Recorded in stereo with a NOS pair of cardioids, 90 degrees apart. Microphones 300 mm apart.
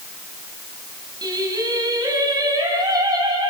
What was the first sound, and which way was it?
Singing, 15° right.